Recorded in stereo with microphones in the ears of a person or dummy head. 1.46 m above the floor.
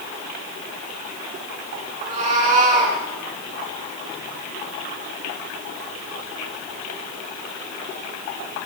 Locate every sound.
2.0 s a cat meowing: 40° right (ahead or behind), 3.5 m; by 3.0 s 45° right (ahead or behind), 3 m